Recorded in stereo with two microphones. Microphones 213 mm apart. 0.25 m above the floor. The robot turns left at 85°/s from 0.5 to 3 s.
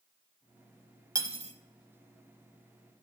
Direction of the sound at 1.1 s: 15° right (ahead or behind).